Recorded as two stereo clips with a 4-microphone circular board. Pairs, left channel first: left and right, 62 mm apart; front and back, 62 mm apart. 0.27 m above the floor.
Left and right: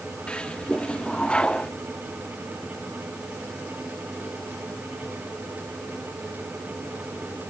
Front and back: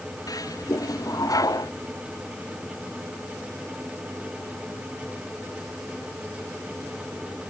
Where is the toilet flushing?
15° left.